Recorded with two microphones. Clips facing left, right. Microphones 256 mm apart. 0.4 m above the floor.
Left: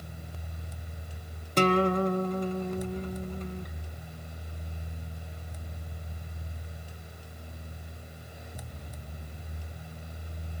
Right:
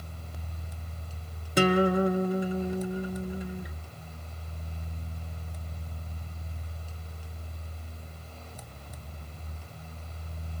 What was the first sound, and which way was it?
A guitar, 10° right (ahead or behind).